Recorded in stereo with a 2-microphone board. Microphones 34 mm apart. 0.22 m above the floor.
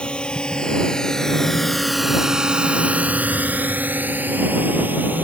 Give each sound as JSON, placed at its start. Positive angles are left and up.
{"t": 0.0, "sound": "a drone", "side_deg": 30}